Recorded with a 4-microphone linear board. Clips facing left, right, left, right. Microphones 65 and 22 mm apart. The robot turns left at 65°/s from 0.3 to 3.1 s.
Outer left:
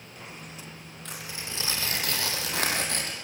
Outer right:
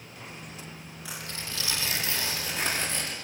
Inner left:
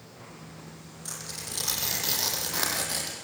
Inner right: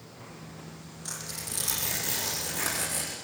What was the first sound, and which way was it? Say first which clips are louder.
Tearing paper: even, even; 170° right.